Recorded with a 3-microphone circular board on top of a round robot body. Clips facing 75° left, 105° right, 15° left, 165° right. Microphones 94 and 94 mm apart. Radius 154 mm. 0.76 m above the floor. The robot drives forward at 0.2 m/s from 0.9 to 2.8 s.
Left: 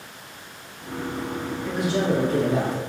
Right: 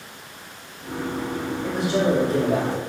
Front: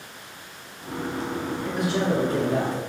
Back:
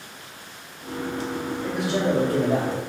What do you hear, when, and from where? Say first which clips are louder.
1.6 s a man speaking: right 2 dB, back 1 dB; 160° right, 1.9 m